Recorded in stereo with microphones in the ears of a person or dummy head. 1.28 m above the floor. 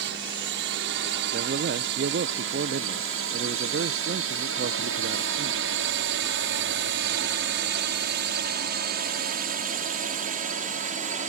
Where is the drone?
65° right (ahead or behind); by 11.3 s 45° right (ahead or behind).